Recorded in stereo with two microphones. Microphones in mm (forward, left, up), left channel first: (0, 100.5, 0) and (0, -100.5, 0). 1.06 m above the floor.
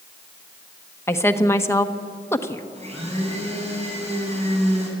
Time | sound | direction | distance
1.1 | a woman speaking | 10° left (ahead or behind) | 1.3 m
2.8 | a blender | 30° right (ahead or behind) | 5.5 m